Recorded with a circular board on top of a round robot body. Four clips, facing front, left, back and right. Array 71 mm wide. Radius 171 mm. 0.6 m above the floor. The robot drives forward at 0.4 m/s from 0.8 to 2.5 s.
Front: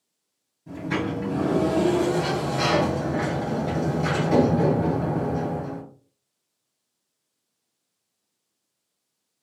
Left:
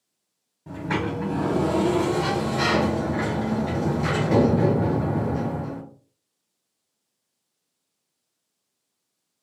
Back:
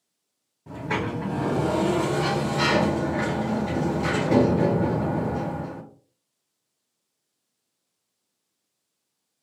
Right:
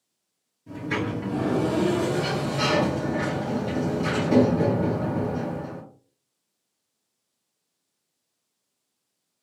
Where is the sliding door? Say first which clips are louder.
Left 1 dB, front 1 dB; 120° left, 0.9 m; by 5.8 s 145° left, 1.4 m.